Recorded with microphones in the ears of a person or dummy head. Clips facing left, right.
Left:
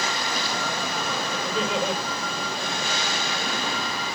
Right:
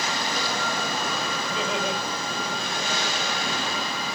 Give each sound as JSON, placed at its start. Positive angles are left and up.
{"t": 1.4, "sound": "laughter", "side_deg": 15, "distance_m": 8.0}